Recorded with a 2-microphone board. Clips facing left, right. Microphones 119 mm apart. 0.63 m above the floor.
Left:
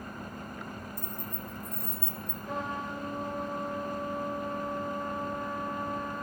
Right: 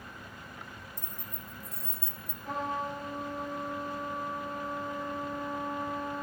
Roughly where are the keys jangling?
Right.